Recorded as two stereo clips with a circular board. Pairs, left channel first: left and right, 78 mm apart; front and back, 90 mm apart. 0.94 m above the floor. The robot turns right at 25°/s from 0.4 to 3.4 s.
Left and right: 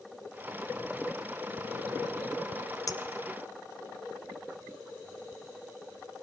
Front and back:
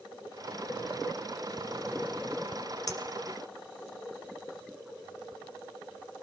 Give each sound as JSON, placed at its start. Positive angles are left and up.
{"t": 2.9, "sound": "a clink", "azimuth_deg": 50, "distance_m": 1.9}